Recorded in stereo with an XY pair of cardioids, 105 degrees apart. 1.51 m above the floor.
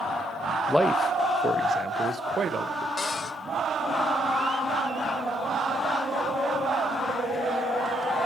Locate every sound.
0.7 s a man speaking: 10° left, 0.6 m; by 2.9 s 50° right, 1.5 m
3.0 s a cupboard door: 40° left, 2.5 m